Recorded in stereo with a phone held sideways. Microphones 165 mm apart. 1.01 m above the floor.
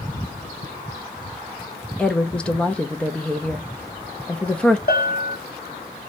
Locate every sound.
2.0 s a woman speaking: 5° left (ahead or behind), 0.5 m
4.9 s a bell: 65° left (ahead or behind), 1.7 m